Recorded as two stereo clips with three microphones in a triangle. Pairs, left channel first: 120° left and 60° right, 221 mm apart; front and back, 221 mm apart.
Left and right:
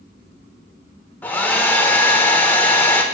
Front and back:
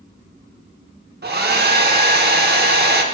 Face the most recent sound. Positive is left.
turn(degrees=-160)